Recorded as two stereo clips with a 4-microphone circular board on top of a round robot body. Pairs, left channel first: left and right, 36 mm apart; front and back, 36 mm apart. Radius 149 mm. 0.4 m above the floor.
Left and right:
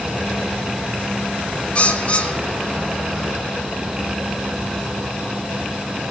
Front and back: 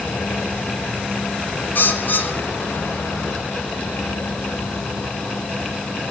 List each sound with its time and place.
1.8 s a bird: 35° left, 0.7 m